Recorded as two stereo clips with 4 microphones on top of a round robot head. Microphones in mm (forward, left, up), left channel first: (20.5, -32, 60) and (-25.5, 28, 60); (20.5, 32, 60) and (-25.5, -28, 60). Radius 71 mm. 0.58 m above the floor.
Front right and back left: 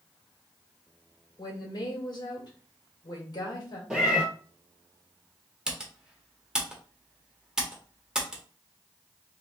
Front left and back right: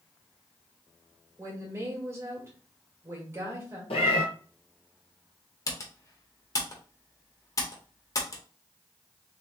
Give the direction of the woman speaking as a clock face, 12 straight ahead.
2 o'clock.